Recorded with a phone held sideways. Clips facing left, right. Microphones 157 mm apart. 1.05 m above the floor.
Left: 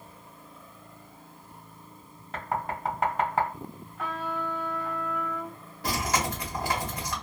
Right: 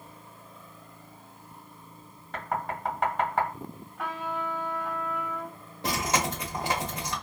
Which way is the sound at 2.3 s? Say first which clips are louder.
Even; 5° left (ahead or behind).